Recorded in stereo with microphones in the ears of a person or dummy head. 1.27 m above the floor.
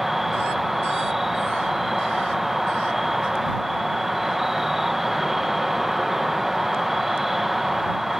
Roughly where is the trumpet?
I don't hear a trumpet.